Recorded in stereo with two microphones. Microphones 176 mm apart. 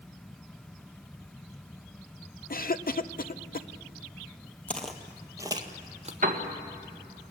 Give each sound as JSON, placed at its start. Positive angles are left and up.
{"t": 2.5, "sound": "a cough", "side_deg": 55, "distance_m": 0.8}
{"t": 4.7, "sound": "footsteps", "side_deg": 10, "distance_m": 1.8}
{"t": 6.2, "sound": "a piano", "side_deg": -50, "distance_m": 1.6}